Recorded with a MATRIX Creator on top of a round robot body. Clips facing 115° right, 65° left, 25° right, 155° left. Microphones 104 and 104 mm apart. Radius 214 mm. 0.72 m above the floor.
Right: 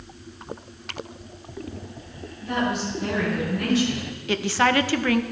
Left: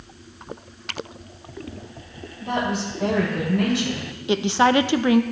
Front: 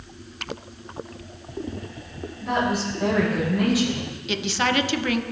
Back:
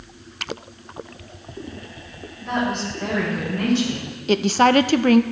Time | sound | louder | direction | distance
2.4 | a woman speaking | left 1 dB, even | 60° left | 6 m
4.3 | a woman speaking | left 3 dB, back 9 dB | 130° left | 0.7 m